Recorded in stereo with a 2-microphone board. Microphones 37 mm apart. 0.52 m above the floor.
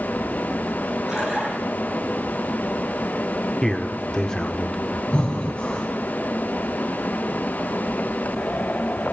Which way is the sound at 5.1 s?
30° left (ahead or behind).